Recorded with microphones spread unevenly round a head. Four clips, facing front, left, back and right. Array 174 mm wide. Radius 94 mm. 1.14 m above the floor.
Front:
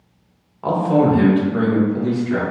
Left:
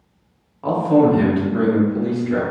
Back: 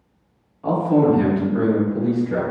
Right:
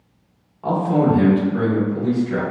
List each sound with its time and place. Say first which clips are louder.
0.6 s a man speaking: left 3 dB, front 1 dB; 15° left, 1.6 m; by 2.4 s 30° left, 3.5 m